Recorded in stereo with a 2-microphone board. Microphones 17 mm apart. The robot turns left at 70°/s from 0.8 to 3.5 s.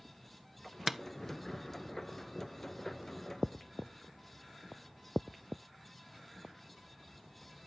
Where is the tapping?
15° right (ahead or behind), 0.7 m; by 1.0 s 5° right (ahead or behind), 0.7 m.